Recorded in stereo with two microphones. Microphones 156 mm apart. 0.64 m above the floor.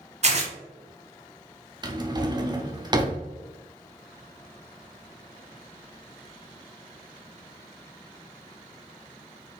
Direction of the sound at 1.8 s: 30° right (ahead or behind).